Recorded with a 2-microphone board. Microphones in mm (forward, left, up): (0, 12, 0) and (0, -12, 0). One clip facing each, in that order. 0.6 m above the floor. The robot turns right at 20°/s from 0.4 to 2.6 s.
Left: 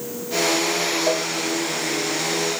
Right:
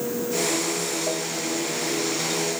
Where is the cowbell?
45° left (ahead or behind); by 1.3 s 50° left (ahead or behind).